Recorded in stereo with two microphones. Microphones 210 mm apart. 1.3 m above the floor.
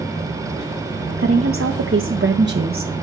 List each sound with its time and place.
1.2 s a woman speaking: 85° right, 1.5 m; by 2.9 s 40° right (ahead or behind), 0.9 m